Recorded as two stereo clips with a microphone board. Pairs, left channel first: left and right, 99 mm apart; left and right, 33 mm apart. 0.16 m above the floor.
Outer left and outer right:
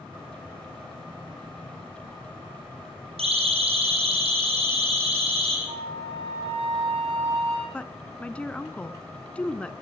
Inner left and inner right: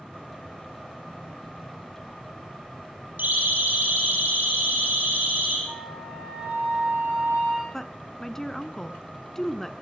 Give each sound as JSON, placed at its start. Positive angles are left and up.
{"t": 3.2, "sound": "a siren", "side_deg": -80, "distance_m": 7.0}
{"t": 5.7, "sound": "a flute", "side_deg": -75, "distance_m": 9.5}
{"t": 7.7, "sound": "a woman speaking", "side_deg": 10, "distance_m": 1.3}